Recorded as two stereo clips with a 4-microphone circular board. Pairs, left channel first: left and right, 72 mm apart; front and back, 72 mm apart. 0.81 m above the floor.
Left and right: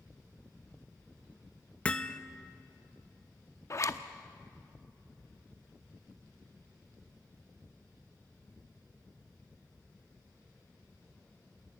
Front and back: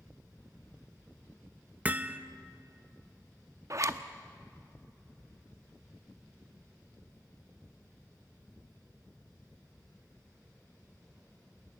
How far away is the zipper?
About 0.7 m.